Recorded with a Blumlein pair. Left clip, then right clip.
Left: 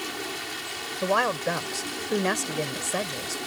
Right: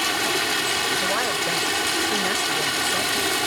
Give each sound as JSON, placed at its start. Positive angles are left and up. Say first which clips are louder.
{"t": 0.0, "sound": "running water", "louder": "right 11 dB", "azimuth_deg": -30}
{"t": 1.0, "sound": "a woman speaking", "louder": "right 2 dB", "azimuth_deg": 15}